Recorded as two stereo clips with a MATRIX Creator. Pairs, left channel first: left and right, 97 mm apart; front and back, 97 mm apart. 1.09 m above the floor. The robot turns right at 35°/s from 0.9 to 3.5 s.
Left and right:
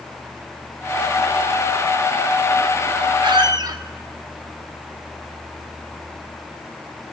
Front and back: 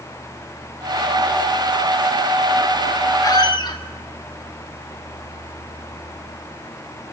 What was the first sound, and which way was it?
A squeak, 50° right.